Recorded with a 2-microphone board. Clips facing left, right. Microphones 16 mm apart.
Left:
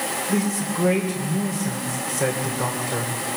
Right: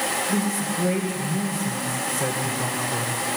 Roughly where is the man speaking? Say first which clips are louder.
Left 1 dB; left.